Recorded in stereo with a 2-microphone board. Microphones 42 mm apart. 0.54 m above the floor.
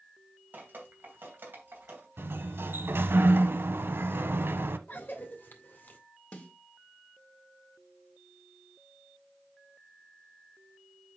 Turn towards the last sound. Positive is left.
turn(degrees=35)  # may be behind; listen again after turning